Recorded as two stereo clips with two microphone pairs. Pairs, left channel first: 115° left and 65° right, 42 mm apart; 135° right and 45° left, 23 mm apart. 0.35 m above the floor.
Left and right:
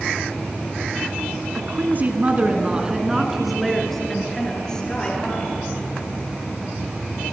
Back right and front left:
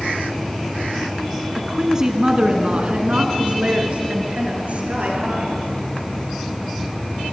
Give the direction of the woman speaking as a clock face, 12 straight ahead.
1 o'clock.